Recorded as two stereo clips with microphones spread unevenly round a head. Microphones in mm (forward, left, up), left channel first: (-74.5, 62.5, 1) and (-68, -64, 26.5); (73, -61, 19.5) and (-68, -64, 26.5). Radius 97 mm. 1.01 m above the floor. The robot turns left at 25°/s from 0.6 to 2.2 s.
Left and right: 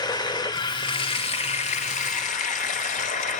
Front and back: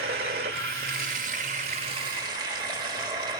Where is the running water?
155° left, 1.3 m; by 3.4 s 115° left, 1.3 m.